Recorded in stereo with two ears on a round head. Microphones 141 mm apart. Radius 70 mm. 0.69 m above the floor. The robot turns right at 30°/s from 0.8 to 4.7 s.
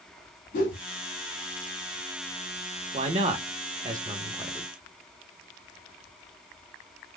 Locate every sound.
0.5 s a whoosh: 55° left (ahead or behind), 1.7 m
2.9 s a man speaking: 40° right (ahead or behind), 0.9 m; by 4.7 s 10° right (ahead or behind), 0.9 m